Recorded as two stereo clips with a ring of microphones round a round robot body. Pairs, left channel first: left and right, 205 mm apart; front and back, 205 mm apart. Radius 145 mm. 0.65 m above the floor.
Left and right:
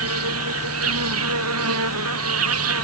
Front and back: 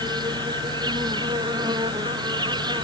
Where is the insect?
105° right.